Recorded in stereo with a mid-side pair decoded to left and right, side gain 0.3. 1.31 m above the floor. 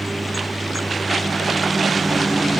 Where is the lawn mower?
15° right.